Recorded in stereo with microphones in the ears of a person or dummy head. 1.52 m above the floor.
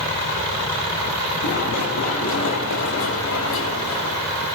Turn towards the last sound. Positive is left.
turn(degrees=75)  # may be behind; listen again after turning